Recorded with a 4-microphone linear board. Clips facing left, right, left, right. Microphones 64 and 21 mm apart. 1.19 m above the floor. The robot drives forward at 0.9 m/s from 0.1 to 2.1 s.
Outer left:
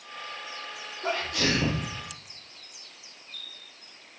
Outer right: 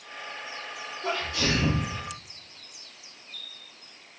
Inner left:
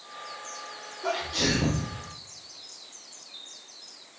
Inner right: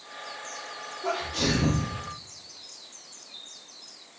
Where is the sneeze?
50° left (ahead or behind), 1.3 m; by 1.9 s 70° left (ahead or behind), 1.1 m.